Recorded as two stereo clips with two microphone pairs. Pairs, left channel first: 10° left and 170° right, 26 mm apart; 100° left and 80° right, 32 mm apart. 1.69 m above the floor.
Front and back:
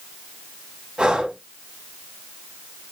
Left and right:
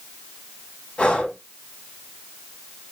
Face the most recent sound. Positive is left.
turn(degrees=145)